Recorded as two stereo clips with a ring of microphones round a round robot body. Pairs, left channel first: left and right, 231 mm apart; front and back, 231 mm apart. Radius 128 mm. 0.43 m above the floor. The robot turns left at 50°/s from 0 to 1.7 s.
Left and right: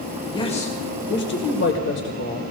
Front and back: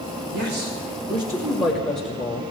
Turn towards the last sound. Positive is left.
turn(degrees=85)